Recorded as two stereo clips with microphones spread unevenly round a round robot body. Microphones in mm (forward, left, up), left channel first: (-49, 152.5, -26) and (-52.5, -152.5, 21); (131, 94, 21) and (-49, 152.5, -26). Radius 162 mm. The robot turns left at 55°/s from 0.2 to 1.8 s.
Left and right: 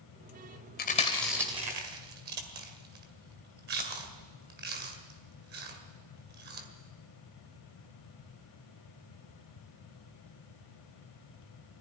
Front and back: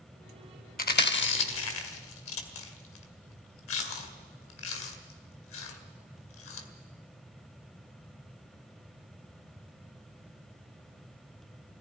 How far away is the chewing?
About 1.8 m.